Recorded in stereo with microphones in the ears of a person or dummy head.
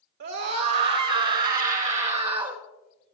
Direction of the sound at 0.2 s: 70° right (ahead or behind).